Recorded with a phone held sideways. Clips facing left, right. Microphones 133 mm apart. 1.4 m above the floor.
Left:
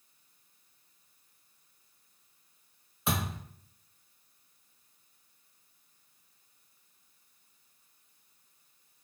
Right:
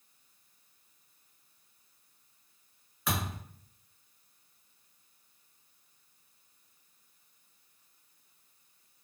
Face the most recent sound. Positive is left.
turn(degrees=25)  # may be behind; listen again after turning